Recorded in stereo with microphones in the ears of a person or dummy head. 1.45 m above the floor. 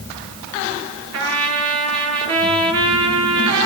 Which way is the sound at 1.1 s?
70° right (ahead or behind).